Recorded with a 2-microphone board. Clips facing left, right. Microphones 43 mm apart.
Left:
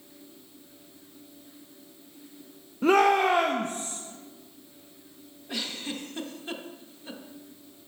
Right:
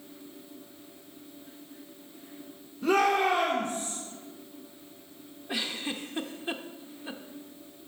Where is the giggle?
20° right (ahead or behind), 0.6 m.